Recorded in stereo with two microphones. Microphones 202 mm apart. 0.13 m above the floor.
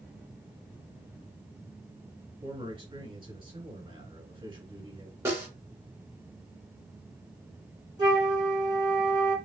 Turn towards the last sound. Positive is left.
turn(degrees=-20)  # may be behind; listen again after turning